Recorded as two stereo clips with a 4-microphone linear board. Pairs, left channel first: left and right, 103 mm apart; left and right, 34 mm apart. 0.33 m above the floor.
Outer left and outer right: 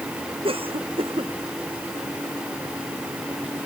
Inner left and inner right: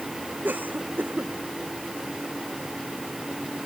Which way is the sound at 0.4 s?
65° right (ahead or behind).